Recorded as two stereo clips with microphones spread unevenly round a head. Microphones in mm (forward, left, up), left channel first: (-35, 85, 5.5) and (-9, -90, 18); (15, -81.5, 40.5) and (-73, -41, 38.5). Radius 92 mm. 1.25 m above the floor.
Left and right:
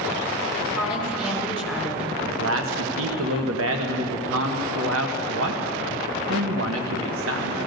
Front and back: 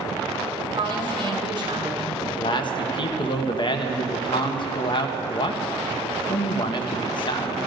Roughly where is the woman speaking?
Behind.